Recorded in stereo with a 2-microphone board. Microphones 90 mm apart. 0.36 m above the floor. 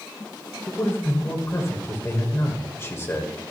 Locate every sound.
0.7 s a man speaking: 30° left (ahead or behind), 1.4 m